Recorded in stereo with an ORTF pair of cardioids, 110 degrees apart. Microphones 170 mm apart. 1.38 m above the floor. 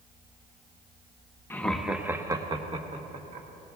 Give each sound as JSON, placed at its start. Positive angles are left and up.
{"t": 1.5, "sound": "laughter", "azimuth_deg": 15, "distance_m": 1.0}